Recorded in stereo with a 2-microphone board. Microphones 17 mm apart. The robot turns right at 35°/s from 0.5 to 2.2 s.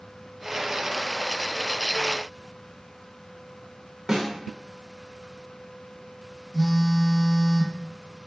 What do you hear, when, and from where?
4.1 s a snare drum: 35° right (ahead or behind), 0.7 m
6.5 s a phone buzzing: 5° left (ahead or behind), 0.7 m